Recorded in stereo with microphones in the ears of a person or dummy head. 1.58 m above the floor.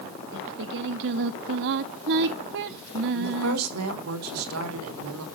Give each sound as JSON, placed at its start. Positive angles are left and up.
{"t": 0.3, "sound": "singing", "side_deg": -55, "distance_m": 1.5}
{"t": 3.1, "sound": "a woman speaking", "side_deg": -85, "distance_m": 6.0}